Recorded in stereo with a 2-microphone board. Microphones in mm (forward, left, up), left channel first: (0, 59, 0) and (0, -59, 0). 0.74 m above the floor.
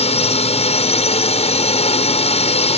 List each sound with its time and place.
0.0 s a drone: 60° left (ahead or behind)